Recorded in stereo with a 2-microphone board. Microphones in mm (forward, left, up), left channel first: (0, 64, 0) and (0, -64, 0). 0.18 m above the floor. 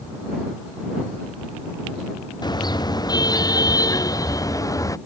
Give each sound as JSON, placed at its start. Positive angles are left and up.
{"t": 2.4, "sound": "a car horn", "side_deg": 30}